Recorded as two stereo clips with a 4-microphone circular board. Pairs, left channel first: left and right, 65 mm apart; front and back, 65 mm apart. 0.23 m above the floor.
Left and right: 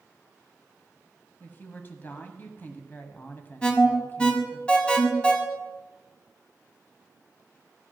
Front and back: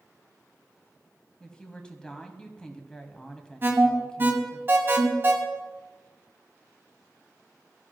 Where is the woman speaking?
65° left, 1.5 m.